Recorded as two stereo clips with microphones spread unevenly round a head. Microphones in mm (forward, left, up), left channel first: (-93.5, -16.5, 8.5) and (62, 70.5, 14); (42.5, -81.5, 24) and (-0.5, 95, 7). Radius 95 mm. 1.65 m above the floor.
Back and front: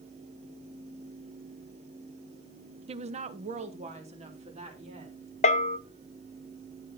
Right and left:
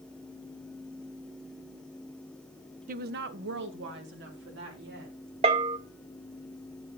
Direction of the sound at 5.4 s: 165° left.